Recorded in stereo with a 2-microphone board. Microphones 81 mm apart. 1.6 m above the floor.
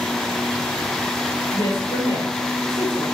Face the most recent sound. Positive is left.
turn(degrees=80)